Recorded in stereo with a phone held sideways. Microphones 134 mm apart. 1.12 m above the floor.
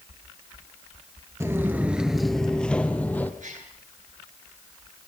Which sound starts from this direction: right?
A gasp, at 3.4 s.